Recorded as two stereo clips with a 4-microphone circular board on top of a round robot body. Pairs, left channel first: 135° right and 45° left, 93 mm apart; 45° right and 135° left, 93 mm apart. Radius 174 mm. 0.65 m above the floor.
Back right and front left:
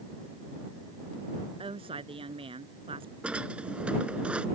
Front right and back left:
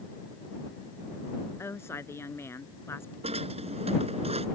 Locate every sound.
1.6 s a woman speaking: 20° left
3.2 s a drawer: 125° left